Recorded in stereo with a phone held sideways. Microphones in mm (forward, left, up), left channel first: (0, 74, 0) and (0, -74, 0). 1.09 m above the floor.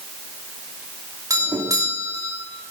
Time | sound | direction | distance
1.3 | a doorbell | 25° right (ahead or behind) | 3 m